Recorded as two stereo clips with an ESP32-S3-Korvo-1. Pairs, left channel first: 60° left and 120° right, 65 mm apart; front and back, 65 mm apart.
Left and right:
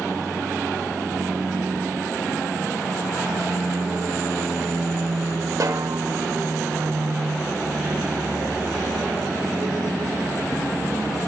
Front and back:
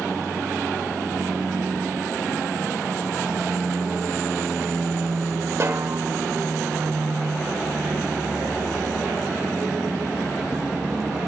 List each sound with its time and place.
5.6 s a snare drum: 140° right, 1.1 m